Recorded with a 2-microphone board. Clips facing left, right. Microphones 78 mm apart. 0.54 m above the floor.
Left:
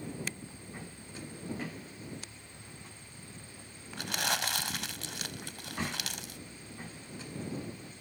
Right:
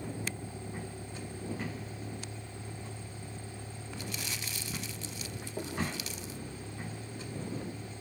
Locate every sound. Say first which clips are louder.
0.0 s a vehicle: right 2 dB; 60° right (ahead or behind)
4.0 s crumpling: left 9 dB; 75° left (ahead or behind)